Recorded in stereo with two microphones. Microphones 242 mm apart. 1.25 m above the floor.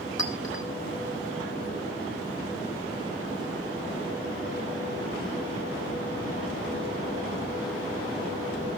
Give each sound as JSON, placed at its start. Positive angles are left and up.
{"t": 0.2, "sound": "a clink", "side_deg": -75, "distance_m": 3.5}